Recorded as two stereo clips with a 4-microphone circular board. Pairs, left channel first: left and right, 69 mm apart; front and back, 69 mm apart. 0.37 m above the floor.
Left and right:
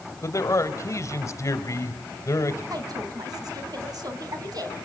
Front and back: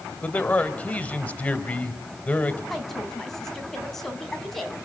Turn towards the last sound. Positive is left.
turn(degrees=-85)